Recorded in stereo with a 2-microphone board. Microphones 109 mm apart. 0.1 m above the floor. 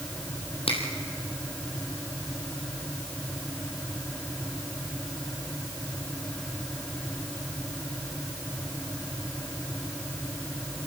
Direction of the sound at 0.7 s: 65° left (ahead or behind).